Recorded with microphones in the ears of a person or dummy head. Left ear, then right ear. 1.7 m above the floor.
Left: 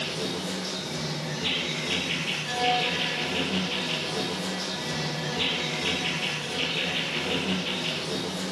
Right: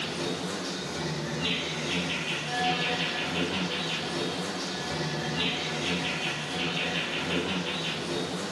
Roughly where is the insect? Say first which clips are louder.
Left 1 dB; left.